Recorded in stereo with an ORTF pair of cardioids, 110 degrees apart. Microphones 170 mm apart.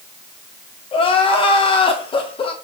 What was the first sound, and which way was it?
Crying, 30° left.